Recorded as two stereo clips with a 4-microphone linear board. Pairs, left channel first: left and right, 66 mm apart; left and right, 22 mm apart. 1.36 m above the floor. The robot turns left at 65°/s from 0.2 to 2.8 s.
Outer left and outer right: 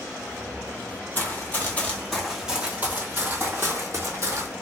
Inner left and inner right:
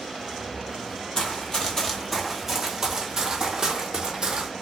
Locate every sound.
1.1 s running footsteps: 30° left (ahead or behind), 1.5 m; by 4.5 s 45° right (ahead or behind), 1.9 m